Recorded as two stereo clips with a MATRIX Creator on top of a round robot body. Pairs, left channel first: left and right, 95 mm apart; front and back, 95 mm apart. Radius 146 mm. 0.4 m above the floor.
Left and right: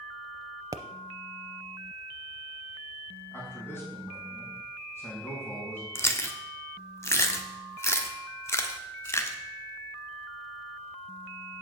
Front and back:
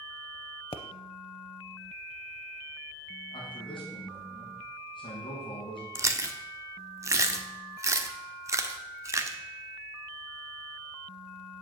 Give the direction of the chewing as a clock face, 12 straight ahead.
7 o'clock.